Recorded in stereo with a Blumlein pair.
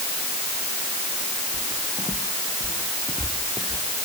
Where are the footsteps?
5° left.